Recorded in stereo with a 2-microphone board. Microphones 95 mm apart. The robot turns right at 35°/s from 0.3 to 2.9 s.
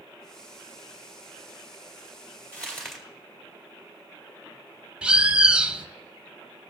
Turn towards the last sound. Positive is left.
turn(degrees=-10)  # may be behind; listen again after turning